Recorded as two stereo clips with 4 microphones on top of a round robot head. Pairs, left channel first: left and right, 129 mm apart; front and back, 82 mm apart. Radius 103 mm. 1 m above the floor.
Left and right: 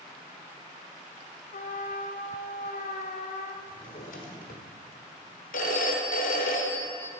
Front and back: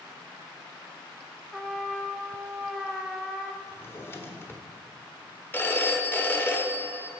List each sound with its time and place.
1.5 s a trumpet: 90° left, 1.0 m
3.6 s a drawer: 60° left, 1.2 m
5.5 s a phone ringing: 65° left, 1.2 m